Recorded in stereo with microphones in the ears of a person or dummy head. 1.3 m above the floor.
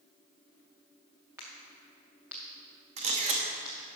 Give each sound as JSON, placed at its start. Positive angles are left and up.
{"t": 1.4, "sound": "a crack", "side_deg": -5, "distance_m": 0.8}
{"t": 3.0, "sound": "a camera shutter", "side_deg": -30, "distance_m": 1.0}